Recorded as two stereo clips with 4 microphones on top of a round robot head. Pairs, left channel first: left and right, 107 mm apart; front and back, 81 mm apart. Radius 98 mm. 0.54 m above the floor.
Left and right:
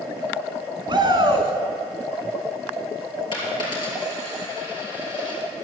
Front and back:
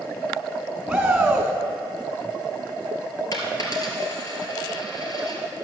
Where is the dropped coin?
40° left, 2.5 m.